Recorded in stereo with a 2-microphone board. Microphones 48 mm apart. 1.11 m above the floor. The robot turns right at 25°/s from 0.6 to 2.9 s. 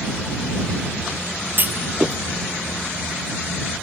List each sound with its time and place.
1.6 s a clunk: 40° right (ahead or behind); by 2.2 s 25° right (ahead or behind)